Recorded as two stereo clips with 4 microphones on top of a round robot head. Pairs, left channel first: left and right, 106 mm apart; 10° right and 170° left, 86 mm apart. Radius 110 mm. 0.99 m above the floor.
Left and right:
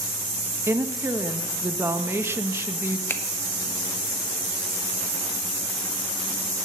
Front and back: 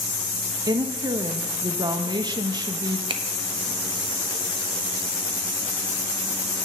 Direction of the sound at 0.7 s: 155° right.